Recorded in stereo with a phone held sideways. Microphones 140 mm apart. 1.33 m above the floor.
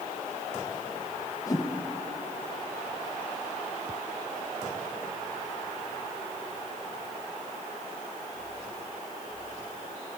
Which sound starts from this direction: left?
A whoosh, at 1.5 s.